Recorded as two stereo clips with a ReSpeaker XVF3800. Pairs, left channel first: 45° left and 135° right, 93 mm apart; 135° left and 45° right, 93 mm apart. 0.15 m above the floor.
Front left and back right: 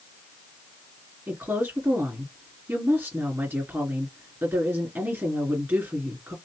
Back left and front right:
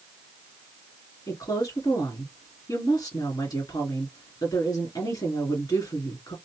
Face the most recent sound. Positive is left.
turn(degrees=165)